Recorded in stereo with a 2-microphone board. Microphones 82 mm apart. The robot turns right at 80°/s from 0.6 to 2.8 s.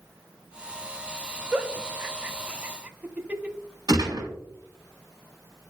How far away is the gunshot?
About 3 m.